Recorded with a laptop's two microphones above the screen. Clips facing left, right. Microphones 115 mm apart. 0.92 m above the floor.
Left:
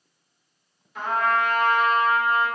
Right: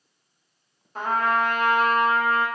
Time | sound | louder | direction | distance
0.9 | a trumpet | even | 40° right (ahead or behind) | 0.6 m